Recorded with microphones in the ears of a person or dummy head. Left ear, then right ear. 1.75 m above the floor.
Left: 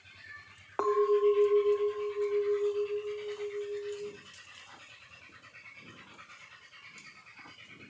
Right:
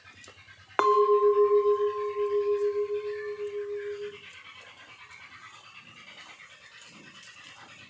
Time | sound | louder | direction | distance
0.8 | a clink | right 5 dB | 35° right (ahead or behind) | 0.9 m